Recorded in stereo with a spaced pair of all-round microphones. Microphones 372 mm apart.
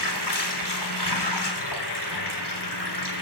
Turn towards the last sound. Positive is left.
turn(degrees=85)